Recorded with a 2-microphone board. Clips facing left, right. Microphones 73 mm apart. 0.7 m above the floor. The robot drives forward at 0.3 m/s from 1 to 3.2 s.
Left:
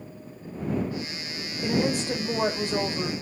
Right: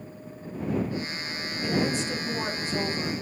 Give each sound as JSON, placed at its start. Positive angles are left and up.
{"t": 1.6, "sound": "a woman speaking", "side_deg": 60, "distance_m": 3.0}